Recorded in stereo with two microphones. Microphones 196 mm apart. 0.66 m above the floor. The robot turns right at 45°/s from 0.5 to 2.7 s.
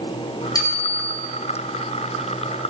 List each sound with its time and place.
0.6 s a bicycle bell: 20° left (ahead or behind), 3.5 m; by 1.1 s 5° right (ahead or behind), 3.5 m